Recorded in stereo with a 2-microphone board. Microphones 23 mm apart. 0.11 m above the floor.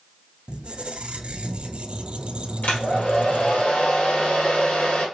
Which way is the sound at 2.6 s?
65° left (ahead or behind).